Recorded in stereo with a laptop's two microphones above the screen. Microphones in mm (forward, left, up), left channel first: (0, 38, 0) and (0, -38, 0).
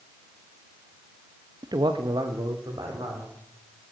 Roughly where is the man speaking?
Right.